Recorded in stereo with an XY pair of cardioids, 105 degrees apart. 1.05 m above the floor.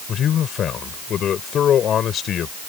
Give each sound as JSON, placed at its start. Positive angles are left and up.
{"t": 0.1, "sound": "a man speaking", "azimuth_deg": 60}